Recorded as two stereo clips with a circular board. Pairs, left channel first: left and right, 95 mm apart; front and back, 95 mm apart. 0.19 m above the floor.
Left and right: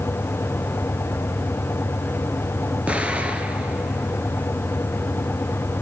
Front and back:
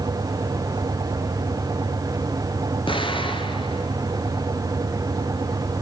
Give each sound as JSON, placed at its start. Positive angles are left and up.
{"t": 2.9, "sound": "an explosion", "azimuth_deg": -15, "distance_m": 2.0}